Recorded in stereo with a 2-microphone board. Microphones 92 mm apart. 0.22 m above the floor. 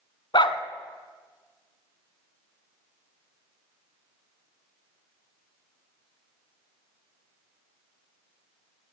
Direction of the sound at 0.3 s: 55° left (ahead or behind).